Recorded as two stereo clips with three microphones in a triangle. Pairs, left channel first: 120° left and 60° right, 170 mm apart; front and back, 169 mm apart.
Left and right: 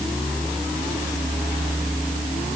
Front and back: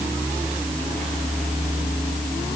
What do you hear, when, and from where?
Only background noise.